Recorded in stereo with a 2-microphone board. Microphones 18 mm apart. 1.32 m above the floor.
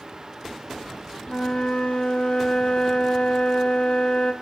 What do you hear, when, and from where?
1.3 s a flute: 55° left (ahead or behind), 0.5 m